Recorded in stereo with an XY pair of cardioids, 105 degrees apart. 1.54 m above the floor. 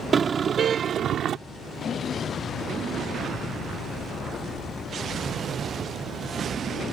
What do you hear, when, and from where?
0.1 s a car horn: 40° right; by 1.4 s 65° right